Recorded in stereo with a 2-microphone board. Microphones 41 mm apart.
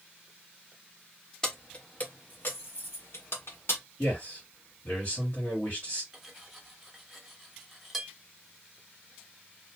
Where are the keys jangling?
20° left (ahead or behind), 0.8 m; by 3.8 s 80° left, 1.4 m.